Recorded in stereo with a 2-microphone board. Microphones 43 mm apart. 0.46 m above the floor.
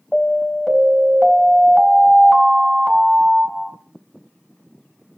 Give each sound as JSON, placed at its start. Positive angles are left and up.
{"t": 0.1, "sound": "an alarm", "side_deg": 0, "distance_m": 3.5}